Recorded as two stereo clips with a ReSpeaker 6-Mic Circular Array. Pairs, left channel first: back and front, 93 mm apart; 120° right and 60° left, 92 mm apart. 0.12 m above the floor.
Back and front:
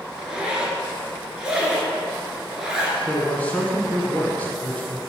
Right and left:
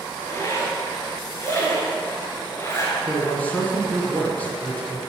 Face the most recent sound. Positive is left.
turn(degrees=-145)